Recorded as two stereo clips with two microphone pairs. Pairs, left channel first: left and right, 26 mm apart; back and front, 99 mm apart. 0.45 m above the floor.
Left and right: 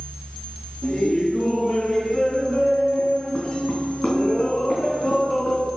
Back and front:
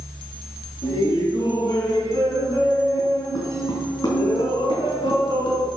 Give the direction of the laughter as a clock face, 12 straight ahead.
7 o'clock.